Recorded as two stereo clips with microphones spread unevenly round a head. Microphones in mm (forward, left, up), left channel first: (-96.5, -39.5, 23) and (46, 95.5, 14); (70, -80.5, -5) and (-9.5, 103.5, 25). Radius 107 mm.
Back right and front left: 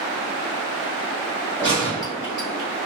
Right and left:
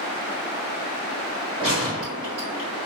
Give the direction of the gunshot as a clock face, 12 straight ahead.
7 o'clock.